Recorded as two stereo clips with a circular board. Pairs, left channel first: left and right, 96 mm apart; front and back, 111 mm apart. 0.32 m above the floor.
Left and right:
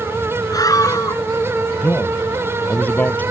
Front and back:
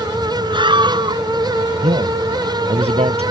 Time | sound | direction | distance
0.5 | a scream | 140° left | ?
1.8 | a man speaking | 165° left | ?